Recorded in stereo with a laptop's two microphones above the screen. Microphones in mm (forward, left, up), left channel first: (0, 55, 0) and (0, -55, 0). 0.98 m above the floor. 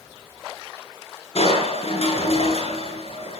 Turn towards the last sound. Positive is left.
turn(degrees=70)  # may be behind; listen again after turning